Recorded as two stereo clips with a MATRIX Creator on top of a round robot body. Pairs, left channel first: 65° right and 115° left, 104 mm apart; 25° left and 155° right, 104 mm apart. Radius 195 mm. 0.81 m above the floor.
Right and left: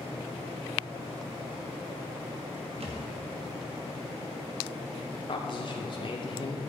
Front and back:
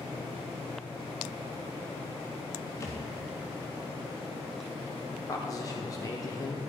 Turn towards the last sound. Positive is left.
turn(degrees=-30)